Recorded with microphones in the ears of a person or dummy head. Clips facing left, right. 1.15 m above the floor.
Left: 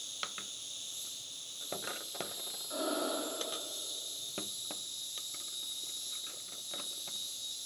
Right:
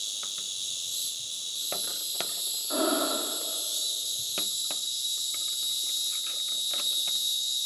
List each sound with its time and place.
0.0 s an insect: 55° right (ahead or behind), 2.5 m
2.7 s breathing: 70° right (ahead or behind), 1.5 m